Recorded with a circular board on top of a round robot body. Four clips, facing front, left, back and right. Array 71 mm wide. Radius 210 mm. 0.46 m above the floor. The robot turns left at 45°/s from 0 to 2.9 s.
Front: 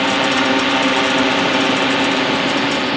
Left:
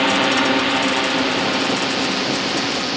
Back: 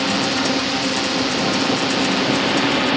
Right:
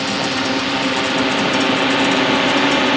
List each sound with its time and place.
0.0 s a drone: 45° left; by 3.0 s 85° right